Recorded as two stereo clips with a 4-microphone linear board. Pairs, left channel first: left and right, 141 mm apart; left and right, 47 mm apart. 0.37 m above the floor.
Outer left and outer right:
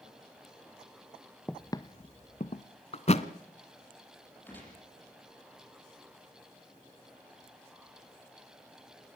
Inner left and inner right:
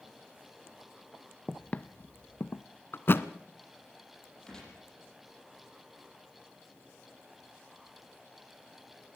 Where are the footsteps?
5° left (ahead or behind), 0.5 m; by 2.7 s 60° left (ahead or behind), 1.1 m.